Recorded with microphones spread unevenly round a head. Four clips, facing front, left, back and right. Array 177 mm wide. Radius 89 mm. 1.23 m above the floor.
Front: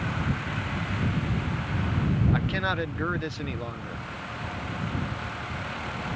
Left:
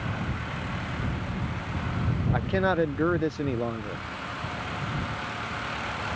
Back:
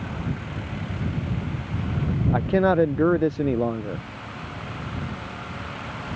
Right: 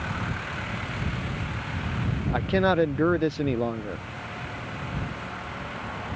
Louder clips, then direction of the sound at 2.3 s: Right 3 dB, back 9 dB; 170° right.